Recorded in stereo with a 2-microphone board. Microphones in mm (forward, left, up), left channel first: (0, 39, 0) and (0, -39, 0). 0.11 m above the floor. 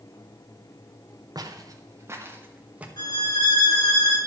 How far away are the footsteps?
About 2.5 m.